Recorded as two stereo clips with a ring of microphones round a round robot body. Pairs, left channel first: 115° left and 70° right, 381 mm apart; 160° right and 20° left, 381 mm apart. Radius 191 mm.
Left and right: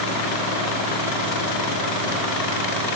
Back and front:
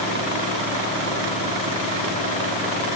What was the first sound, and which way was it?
Only background noise.